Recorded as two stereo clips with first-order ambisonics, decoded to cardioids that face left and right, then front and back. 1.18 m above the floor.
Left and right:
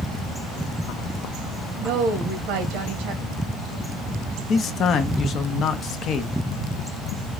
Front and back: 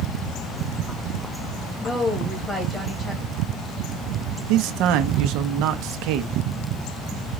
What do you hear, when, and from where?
1.8 s a woman speaking: 75° right, 1.4 m
4.5 s a man speaking: 150° left, 0.9 m